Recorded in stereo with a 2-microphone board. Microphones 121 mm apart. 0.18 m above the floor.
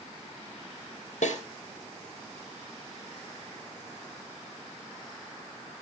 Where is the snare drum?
75° left (ahead or behind), 3.5 m.